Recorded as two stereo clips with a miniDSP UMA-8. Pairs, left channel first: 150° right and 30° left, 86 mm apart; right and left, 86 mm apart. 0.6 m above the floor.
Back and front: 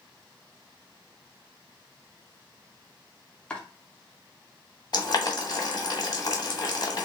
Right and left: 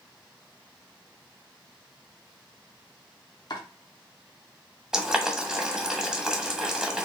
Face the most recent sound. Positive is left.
turn(degrees=175)